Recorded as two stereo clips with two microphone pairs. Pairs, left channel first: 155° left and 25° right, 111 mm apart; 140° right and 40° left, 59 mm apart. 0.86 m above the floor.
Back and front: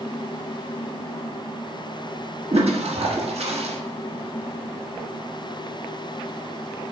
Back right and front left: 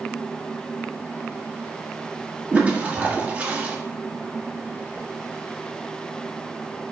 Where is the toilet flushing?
25° right, 1.1 m.